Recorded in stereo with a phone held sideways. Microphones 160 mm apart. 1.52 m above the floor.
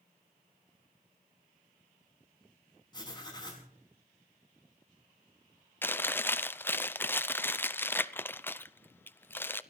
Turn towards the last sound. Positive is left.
turn(degrees=15)  # may be behind; listen again after turning